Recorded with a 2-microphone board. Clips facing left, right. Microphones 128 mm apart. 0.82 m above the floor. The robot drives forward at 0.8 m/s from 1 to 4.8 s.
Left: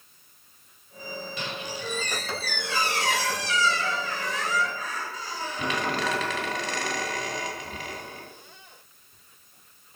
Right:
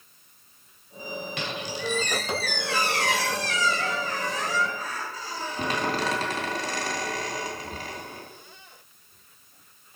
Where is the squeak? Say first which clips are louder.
Right 2 dB; 70° right (ahead or behind), 1.7 m; by 8.3 s 35° right (ahead or behind), 3 m.